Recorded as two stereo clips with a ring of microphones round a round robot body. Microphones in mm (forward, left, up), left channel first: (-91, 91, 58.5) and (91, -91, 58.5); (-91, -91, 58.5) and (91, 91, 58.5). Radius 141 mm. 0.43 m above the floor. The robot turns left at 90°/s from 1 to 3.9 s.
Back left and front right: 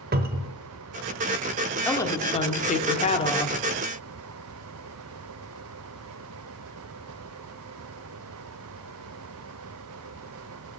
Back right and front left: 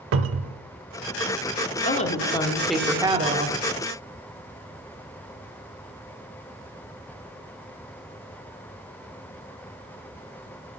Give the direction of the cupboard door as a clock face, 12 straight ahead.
12 o'clock.